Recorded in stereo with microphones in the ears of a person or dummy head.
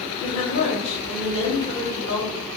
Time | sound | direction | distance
0.2 | a woman speaking | 40° left (ahead or behind) | 2 m